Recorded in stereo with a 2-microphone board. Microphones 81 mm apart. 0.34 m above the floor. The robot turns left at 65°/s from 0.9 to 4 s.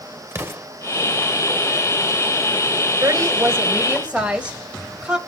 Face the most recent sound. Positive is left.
turn(degrees=-160)